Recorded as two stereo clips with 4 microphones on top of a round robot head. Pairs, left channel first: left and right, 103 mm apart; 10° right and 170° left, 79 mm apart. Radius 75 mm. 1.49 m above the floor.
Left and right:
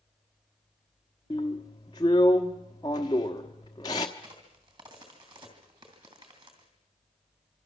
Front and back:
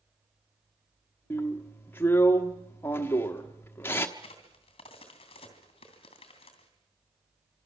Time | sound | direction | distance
1.3 | a drill | 40° left | 1.1 m
4.2 | a crack | 30° right | 2.5 m